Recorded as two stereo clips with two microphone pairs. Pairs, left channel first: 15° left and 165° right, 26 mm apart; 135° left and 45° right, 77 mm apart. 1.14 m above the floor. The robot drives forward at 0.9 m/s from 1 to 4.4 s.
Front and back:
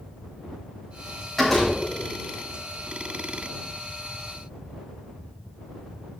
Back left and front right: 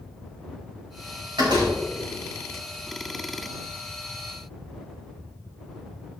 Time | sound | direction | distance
1.4 | a door slam | 65° right | 4 m